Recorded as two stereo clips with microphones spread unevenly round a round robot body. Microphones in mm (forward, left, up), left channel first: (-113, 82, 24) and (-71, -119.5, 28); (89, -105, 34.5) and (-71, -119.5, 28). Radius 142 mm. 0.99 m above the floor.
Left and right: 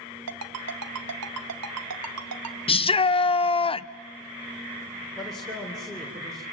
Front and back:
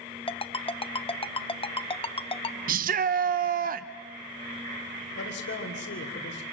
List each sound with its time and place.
0.3 s a ringtone: 50° right, 1.0 m
2.7 s a shout: 165° left, 0.6 m
5.2 s a man speaking: 15° left, 3.5 m